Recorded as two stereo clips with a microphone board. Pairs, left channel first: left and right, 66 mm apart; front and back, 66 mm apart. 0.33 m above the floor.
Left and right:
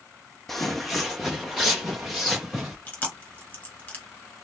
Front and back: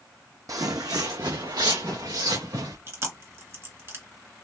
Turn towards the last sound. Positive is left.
turn(degrees=145)